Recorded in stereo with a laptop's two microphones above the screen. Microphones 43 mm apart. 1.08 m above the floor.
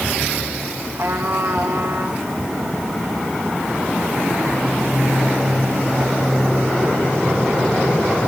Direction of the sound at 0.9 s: 80° right.